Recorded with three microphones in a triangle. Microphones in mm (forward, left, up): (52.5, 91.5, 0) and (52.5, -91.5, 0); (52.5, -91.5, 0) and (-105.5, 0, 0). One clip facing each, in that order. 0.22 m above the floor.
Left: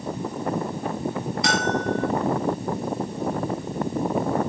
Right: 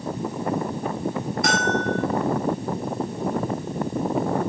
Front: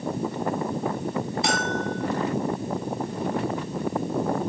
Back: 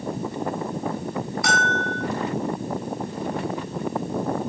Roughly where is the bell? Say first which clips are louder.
Even, even; right.